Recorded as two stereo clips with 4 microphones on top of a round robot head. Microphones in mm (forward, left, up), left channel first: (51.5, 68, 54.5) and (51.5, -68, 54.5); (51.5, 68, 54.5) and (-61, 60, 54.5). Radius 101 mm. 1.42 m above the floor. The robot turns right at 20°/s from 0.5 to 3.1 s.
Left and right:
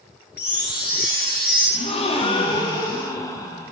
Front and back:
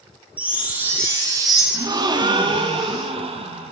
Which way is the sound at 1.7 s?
130° left.